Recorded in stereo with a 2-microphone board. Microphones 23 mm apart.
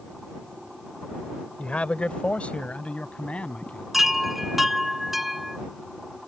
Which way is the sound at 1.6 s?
65° left (ahead or behind).